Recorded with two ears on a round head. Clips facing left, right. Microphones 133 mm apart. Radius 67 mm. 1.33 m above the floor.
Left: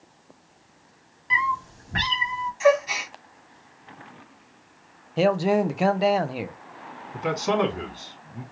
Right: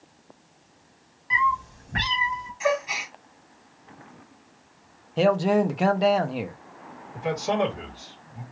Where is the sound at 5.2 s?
5° left (ahead or behind), 0.5 m.